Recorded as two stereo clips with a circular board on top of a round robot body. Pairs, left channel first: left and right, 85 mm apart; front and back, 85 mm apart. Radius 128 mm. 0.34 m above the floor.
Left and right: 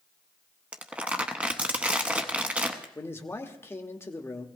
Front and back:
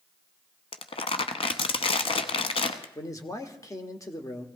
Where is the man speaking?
40° left, 1.2 m.